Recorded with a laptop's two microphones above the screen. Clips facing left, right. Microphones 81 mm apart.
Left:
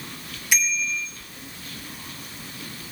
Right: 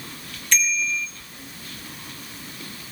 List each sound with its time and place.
0.5 s a bicycle bell: 10° left (ahead or behind), 2.5 m